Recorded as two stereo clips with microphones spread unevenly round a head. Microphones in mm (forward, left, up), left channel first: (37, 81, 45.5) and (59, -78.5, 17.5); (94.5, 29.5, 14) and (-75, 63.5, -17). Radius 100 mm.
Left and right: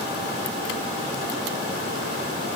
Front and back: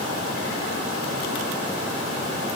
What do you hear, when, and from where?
Only background noise.